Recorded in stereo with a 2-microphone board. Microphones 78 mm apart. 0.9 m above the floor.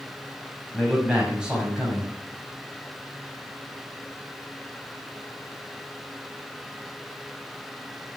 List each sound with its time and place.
0.7 s a man speaking: 10° right (ahead or behind), 6 m